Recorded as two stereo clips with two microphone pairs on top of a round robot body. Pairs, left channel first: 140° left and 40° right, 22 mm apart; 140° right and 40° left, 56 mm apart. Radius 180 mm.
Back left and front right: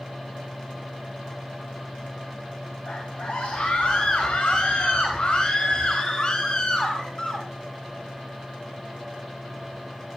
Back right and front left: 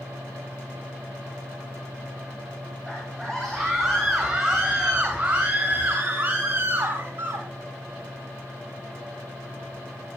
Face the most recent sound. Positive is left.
turn(degrees=80)